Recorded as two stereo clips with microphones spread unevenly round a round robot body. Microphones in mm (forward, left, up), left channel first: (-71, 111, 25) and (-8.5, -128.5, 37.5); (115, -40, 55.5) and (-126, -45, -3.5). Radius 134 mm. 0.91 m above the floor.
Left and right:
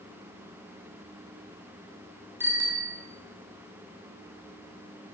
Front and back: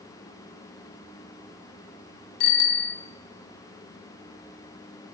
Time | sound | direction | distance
2.4 | a bicycle bell | 5° left | 2 m